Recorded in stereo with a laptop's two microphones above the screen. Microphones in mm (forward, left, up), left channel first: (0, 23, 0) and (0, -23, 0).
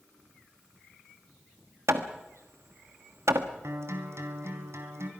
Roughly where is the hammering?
Right.